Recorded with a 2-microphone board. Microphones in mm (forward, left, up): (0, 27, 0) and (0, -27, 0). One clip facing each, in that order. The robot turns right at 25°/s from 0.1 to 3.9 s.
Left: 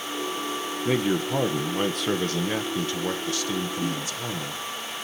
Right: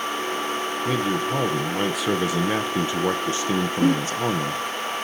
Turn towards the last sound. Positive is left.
turn(degrees=-50)  # may be behind; listen again after turning